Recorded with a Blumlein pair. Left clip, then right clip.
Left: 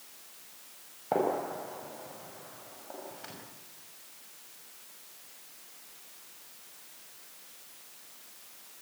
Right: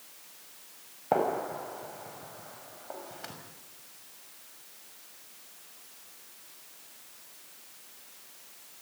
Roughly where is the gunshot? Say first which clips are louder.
Right 2 dB; ahead.